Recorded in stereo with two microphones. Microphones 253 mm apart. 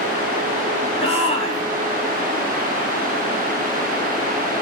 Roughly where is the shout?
Left.